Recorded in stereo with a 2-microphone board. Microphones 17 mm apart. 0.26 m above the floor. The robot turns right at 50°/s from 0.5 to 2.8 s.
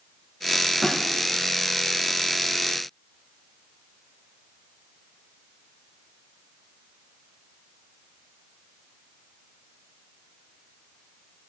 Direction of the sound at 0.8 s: 40° left (ahead or behind).